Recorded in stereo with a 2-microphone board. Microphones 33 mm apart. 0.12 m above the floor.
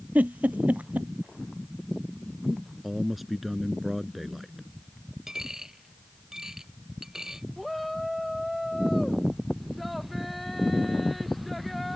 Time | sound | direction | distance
0.1 | a giggle | 55° right (ahead or behind) | ?
2.8 | a man speaking | 5° right (ahead or behind) | ?
5.3 | a dropped coin | 15° right (ahead or behind) | ?
7.6 | a shout | centre (ahead or behind) | ?